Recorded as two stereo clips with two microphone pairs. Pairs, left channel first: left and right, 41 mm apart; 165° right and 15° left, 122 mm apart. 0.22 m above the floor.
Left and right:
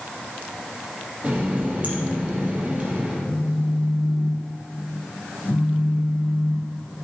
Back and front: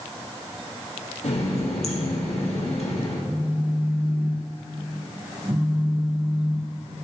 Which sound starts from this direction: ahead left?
A phone buzzing, at 3.3 s.